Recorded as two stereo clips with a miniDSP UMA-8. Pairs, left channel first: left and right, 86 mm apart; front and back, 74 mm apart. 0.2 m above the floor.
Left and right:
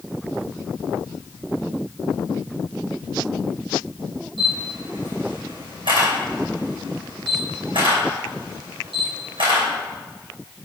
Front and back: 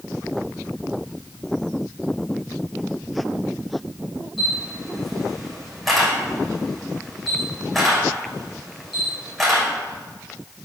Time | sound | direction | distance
4.4 | a camera shutter | 90° right | 2.5 m